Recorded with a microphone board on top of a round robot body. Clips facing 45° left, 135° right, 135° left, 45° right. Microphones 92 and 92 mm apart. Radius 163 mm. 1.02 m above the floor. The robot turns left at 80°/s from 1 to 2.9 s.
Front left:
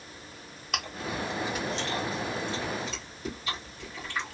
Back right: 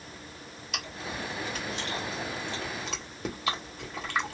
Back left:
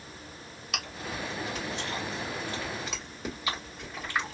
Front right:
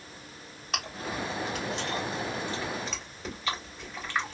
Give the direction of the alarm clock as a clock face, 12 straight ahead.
No alarm clock in this recording.